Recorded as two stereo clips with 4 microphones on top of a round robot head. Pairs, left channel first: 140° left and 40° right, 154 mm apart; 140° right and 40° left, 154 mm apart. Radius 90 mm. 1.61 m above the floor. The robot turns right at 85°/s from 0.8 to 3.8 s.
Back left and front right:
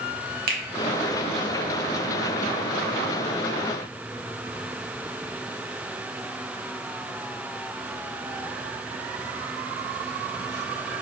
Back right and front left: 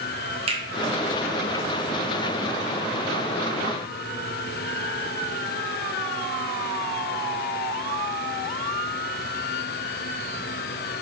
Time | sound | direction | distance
0.5 | a finger snap | 15° right | 0.8 m